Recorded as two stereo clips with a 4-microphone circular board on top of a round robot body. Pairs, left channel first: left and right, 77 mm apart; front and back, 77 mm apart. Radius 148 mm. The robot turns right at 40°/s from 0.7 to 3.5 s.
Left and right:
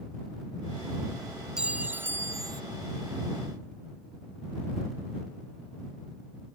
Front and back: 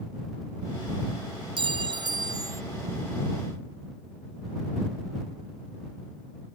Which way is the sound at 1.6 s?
170° right.